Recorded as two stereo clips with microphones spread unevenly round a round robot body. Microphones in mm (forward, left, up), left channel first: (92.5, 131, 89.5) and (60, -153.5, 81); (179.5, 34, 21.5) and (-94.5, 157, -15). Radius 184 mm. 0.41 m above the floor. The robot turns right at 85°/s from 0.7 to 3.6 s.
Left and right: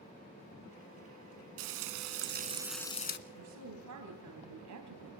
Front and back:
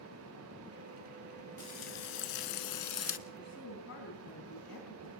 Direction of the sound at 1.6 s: 105° right.